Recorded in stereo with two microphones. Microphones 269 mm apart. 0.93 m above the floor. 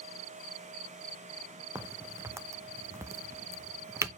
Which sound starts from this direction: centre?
A crack, at 1.8 s.